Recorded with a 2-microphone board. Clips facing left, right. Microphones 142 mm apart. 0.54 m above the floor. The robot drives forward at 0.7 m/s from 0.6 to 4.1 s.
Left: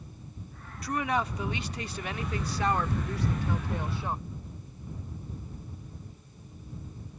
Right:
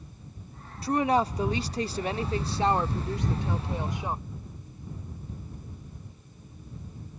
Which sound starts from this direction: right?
A woman speaking, at 0.8 s.